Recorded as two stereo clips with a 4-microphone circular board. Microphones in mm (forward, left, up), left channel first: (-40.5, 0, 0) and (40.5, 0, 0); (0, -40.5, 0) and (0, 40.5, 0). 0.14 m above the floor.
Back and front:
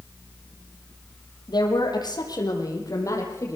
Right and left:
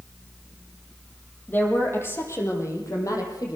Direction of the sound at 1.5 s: 155° right.